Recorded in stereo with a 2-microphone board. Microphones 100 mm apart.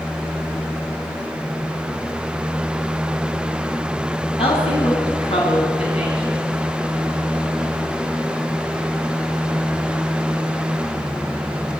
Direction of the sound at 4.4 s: 80° left.